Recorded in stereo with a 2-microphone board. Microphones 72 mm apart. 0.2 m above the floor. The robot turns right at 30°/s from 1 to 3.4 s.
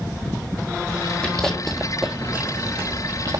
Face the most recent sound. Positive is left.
turn(degrees=-50)  # may be behind; listen again after turning